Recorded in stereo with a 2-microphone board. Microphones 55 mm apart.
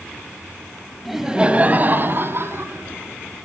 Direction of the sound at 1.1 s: Centre (ahead or behind).